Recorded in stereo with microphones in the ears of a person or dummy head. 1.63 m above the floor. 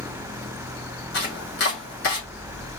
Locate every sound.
1.1 s chopping: 60° left (ahead or behind), 3 m